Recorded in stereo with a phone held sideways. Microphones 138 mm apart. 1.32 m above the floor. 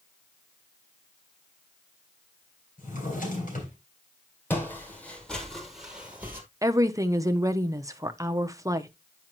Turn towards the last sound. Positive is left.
turn(degrees=-25)  # may be behind; listen again after turning